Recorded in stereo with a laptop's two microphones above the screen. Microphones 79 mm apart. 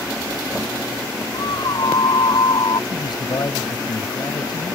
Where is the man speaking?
60° left (ahead or behind).